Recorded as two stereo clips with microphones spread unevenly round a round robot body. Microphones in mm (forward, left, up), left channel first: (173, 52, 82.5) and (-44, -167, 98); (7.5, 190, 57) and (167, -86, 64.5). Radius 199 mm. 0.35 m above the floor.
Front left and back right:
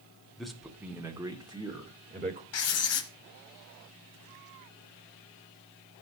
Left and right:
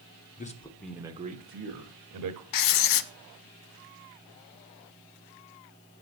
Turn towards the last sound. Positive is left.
turn(degrees=95)